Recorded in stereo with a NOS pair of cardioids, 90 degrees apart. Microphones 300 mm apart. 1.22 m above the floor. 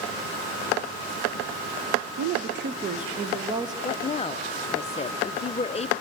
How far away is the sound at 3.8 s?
About 0.6 m.